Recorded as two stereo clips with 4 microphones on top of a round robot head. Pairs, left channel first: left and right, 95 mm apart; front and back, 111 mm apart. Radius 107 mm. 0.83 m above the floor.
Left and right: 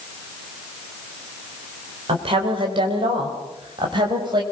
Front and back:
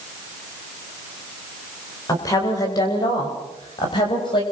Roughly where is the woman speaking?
Ahead right.